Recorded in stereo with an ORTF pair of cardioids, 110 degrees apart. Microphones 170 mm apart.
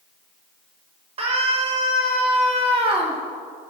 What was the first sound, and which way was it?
A scream, 35° right.